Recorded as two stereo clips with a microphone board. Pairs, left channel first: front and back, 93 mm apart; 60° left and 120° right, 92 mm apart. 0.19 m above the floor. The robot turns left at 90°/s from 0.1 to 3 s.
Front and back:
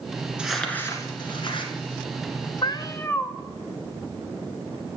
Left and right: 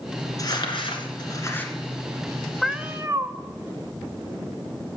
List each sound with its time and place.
0.4 s crumpling: 100° left, 1.8 m; by 1.7 s 20° right, 1.8 m
2.6 s a cat meowing: 30° right, 0.6 m; by 3.3 s 65° right, 0.6 m